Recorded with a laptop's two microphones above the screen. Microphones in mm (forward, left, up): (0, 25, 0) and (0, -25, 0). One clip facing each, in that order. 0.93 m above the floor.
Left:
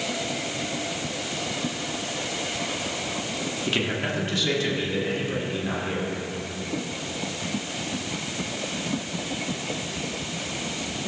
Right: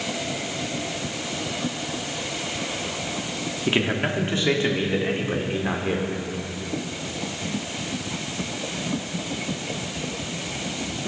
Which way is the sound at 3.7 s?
25° right (ahead or behind).